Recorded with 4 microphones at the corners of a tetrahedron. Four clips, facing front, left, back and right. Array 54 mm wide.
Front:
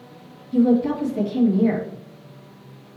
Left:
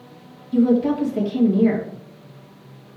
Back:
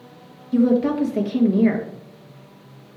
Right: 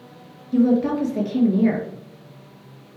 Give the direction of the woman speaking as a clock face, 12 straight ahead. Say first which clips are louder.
Left 1 dB, even; 5 o'clock.